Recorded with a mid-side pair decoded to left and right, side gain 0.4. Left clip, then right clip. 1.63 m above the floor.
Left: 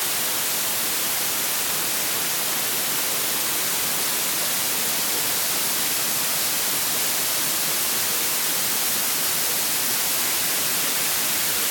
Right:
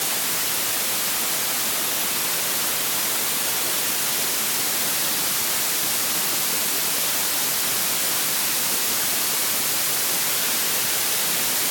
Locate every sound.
Only background noise.